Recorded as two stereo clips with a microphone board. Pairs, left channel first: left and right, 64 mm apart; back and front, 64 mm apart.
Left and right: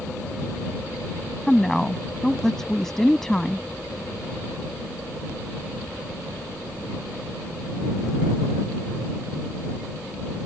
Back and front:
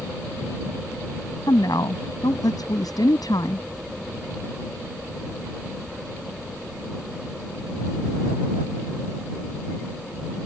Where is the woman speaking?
175° left.